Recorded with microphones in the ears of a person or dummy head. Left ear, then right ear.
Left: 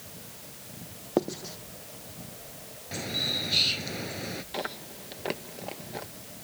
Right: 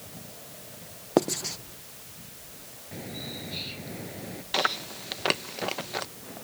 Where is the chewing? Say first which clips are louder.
Right 13 dB; 50° right (ahead or behind).